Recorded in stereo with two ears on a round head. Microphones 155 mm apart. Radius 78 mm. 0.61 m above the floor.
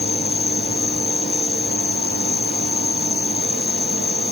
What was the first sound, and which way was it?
An insect, 60° left (ahead or behind).